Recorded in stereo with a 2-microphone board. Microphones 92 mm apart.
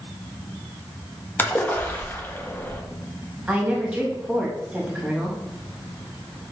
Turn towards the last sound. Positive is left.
turn(degrees=-10)  # may be behind; listen again after turning